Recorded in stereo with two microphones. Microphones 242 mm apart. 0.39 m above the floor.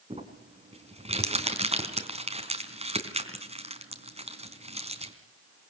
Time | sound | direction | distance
0.1 | crumpling | 30° right (ahead or behind) | 4 m